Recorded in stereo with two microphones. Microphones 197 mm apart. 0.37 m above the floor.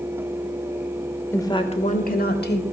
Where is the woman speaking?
10° left (ahead or behind), 0.8 m; by 2.6 s 60° left (ahead or behind), 1.4 m.